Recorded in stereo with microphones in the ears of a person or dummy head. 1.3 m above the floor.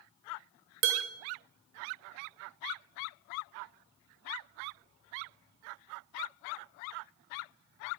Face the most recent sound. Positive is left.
turn(degrees=-50)  # may be behind; listen again after turning